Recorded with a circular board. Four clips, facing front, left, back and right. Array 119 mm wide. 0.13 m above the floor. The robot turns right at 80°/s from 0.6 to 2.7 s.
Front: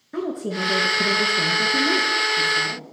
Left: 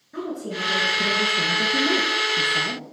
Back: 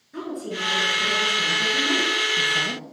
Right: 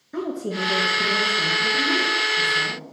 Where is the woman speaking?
30° right, 3 m; by 2.8 s 140° left, 3 m.